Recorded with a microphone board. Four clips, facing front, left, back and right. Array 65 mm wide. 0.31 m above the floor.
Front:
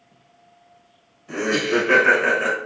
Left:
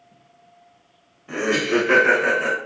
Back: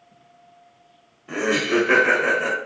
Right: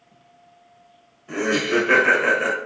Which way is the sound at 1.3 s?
155° left.